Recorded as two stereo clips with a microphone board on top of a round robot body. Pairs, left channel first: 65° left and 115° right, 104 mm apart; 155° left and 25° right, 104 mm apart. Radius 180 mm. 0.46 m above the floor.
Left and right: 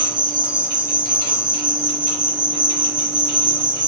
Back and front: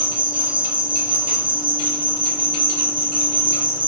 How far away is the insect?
About 1.5 m.